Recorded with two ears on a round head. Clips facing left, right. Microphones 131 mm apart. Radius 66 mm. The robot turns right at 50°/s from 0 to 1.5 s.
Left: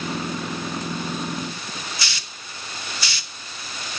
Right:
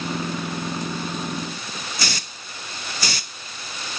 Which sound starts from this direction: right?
A hiss, at 2.0 s.